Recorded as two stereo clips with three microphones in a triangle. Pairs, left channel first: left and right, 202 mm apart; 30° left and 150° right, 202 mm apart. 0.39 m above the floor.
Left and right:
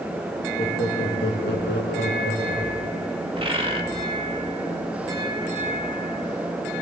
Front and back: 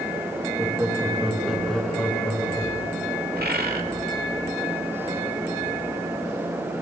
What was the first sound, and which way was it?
Laughter, 135° left.